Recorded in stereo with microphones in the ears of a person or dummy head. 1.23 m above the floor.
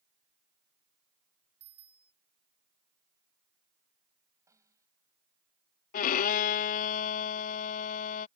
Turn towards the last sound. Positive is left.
turn(degrees=45)  # may be behind; listen again after turning